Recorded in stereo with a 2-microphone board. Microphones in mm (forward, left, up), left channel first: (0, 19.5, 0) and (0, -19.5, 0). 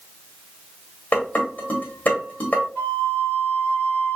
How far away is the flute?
About 2 m.